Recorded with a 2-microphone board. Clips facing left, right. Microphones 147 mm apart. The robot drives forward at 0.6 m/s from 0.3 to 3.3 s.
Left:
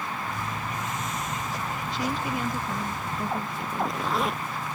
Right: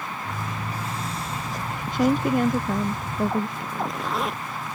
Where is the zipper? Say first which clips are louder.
Even; centre (ahead or behind).